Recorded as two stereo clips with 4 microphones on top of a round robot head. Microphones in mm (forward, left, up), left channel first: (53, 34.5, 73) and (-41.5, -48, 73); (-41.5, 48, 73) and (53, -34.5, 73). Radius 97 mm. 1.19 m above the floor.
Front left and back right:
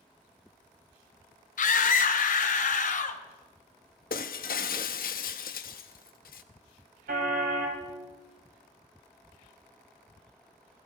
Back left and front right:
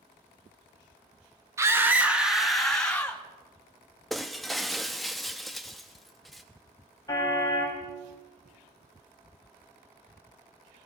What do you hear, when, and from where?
1.6 s a scream: 30° left, 1.6 m; by 3.2 s 60° left, 2.5 m
4.1 s breaking glass: 50° left, 0.6 m
7.1 s a car horn: 155° right, 3.5 m